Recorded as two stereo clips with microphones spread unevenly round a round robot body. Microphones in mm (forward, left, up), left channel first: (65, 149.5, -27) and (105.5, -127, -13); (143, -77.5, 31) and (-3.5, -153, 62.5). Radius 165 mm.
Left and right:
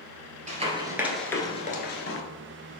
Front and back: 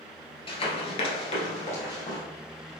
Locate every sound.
0.5 s running footsteps: 30° right, 1.1 m; by 2.2 s 100° left, 1.0 m